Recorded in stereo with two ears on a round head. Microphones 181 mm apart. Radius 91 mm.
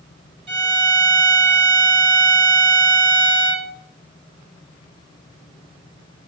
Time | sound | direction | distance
0.5 | a violin | 30° right (ahead or behind) | 1.1 m